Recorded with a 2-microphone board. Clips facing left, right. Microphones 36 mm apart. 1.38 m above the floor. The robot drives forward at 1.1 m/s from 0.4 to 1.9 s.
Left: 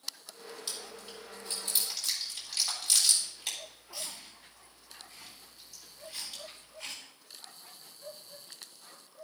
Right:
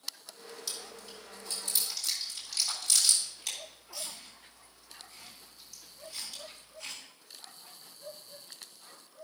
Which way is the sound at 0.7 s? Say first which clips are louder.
Right 1 dB; 30° left (ahead or behind).